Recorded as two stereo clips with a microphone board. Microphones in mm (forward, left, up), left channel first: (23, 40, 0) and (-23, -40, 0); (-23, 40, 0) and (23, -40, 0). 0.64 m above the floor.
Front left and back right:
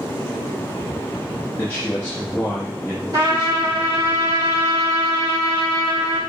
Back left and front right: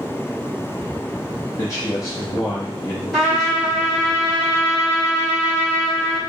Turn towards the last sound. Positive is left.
turn(degrees=-150)